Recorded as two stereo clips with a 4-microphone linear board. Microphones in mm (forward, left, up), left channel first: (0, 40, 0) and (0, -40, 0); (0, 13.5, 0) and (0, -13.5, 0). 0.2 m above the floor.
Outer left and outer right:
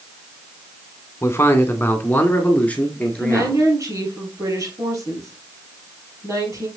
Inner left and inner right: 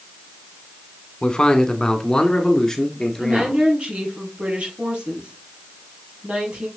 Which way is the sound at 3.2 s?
45° right (ahead or behind).